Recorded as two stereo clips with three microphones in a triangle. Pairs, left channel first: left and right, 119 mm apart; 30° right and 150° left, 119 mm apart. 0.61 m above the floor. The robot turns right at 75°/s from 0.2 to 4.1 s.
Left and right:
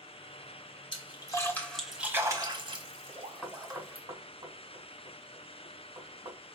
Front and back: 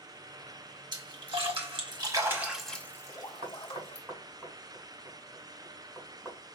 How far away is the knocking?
About 1.8 m.